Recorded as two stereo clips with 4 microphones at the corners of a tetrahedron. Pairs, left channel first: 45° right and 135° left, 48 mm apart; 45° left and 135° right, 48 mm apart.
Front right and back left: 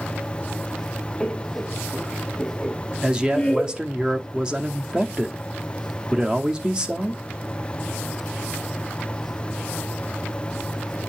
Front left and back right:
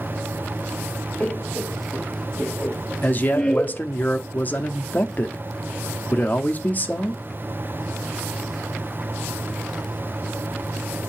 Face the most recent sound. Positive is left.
turn(degrees=70)